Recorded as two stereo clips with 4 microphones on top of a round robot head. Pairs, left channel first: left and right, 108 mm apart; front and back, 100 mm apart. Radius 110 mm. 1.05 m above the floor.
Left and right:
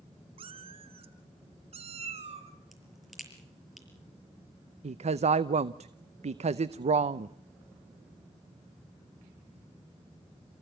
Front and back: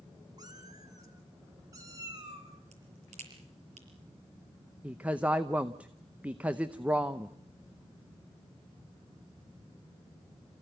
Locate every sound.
0.4 s a cat meowing: 115° right, 1.4 m
2.7 s a crack: straight behind, 6 m
4.8 s a woman speaking: 105° right, 0.7 m